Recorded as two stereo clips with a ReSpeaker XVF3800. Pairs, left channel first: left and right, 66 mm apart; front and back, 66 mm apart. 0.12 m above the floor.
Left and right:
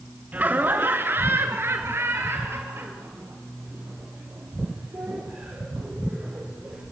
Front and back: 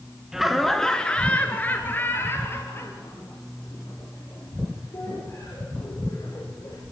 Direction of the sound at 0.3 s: 105° right.